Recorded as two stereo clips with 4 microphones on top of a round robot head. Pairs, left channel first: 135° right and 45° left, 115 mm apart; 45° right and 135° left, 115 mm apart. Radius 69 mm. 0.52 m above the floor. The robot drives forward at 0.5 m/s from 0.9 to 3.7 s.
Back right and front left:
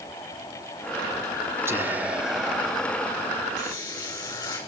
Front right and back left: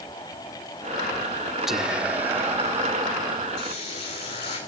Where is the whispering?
55° left, 1.0 m; by 3.5 s 160° left, 1.2 m.